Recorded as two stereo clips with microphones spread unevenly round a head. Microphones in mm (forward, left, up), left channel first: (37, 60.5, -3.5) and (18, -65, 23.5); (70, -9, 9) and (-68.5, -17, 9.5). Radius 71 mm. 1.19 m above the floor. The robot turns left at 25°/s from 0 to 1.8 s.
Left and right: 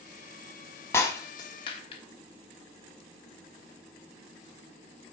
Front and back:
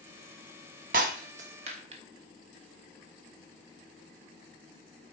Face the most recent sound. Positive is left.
turn(degrees=140)